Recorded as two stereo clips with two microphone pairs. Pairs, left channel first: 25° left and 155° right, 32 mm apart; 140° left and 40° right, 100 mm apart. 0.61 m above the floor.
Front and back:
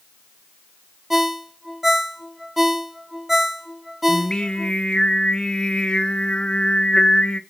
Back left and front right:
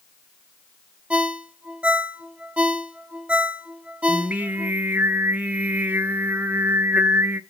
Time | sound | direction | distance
1.1 | a ringtone | 90° right | 0.5 m
4.1 | singing | straight ahead | 0.6 m